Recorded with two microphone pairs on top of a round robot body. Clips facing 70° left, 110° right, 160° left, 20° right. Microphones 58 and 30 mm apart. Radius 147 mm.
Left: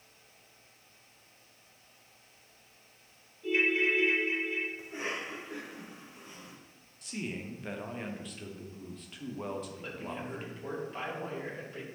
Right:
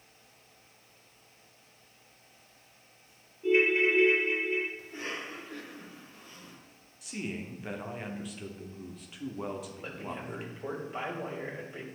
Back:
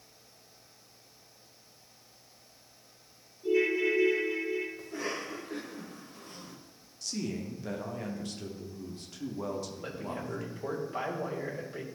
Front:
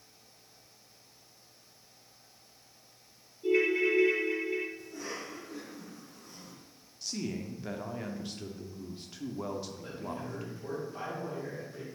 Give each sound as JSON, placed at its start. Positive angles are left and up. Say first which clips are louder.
{"t": 3.4, "sound": "a ringtone", "louder": "right 4 dB, even", "azimuth_deg": -55, "distance_m": 1.7}
{"t": 4.8, "sound": "a cough", "louder": "left 2 dB, back 4 dB", "azimuth_deg": 140, "distance_m": 2.0}
{"t": 7.0, "sound": "a man speaking", "louder": "right 1 dB, back 1 dB", "azimuth_deg": -65, "distance_m": 1.3}
{"t": 9.8, "sound": "a man speaking", "louder": "even, back 2 dB", "azimuth_deg": -165, "distance_m": 2.5}